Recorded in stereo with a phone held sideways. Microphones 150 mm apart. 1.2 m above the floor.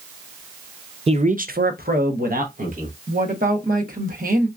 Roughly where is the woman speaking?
Right.